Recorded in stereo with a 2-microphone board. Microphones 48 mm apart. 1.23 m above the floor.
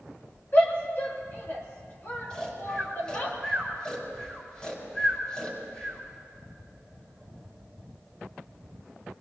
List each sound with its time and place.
0.5 s a shout: 45° left (ahead or behind), 3.5 m
2.3 s snoring: 20° left (ahead or behind), 4 m